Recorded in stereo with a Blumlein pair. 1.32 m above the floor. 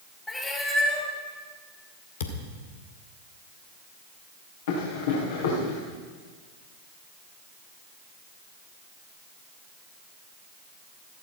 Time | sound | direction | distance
0.3 | a cat meowing | 10° left | 3.5 m
2.2 | a thud | 60° left | 2.0 m
4.7 | running footsteps | 60° left | 5 m